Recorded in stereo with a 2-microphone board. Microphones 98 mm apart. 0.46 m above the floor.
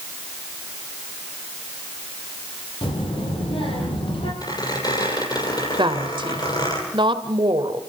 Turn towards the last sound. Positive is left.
turn(degrees=-55)  # may be behind; listen again after turning